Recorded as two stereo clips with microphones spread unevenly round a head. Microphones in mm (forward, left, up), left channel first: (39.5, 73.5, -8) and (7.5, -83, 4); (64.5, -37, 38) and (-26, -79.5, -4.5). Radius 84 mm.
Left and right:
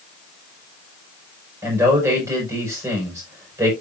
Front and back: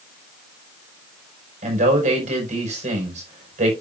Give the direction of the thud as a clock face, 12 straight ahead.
I don't hear a thud.